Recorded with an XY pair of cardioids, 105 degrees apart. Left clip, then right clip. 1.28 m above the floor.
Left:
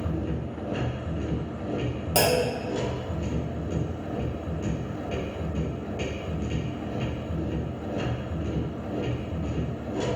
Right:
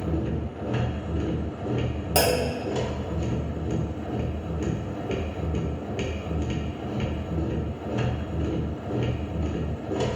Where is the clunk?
10° right, 1.3 m.